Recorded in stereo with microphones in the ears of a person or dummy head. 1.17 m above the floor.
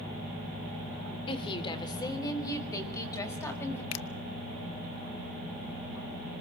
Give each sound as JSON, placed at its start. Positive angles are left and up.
{"t": 1.3, "sound": "a woman speaking", "side_deg": 30, "distance_m": 2.5}
{"t": 3.9, "sound": "a finger snap", "side_deg": 80, "distance_m": 0.9}